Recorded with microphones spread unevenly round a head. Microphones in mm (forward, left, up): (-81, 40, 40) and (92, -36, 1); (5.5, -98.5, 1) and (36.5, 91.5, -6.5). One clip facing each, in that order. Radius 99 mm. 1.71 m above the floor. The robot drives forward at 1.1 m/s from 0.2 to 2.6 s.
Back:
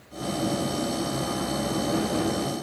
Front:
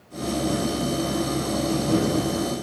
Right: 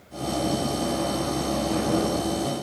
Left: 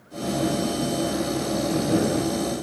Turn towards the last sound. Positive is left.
No sound to turn to.